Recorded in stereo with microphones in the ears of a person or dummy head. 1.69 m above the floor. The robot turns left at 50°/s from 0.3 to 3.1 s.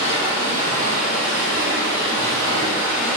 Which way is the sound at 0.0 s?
45° right.